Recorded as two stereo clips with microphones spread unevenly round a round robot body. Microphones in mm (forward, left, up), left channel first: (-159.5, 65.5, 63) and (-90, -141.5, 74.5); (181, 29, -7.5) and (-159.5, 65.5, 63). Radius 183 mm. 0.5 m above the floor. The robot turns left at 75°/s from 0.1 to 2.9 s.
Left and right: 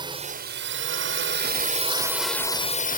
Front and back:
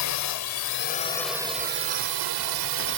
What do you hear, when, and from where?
0.0 s a drone: straight ahead; by 3.0 s 150° left